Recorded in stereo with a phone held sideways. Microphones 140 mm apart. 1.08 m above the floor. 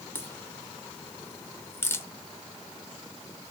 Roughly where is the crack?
Centre.